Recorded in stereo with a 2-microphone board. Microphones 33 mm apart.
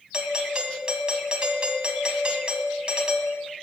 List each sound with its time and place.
0.1 s a doorbell: 30° right (ahead or behind), 2 m